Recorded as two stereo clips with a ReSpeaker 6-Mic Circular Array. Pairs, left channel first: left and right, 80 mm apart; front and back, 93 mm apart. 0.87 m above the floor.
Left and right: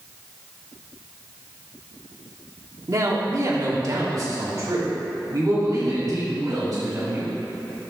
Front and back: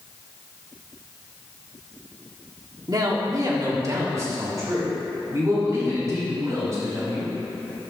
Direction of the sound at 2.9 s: 135° right.